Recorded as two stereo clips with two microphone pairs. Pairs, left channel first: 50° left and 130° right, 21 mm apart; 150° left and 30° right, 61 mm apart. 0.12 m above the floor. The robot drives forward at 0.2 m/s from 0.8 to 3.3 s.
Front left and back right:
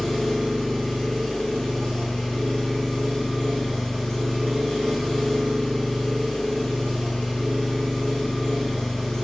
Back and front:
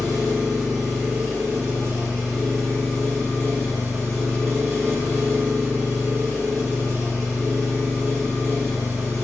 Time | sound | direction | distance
0.0 | an engine running | 65° left | 1.9 m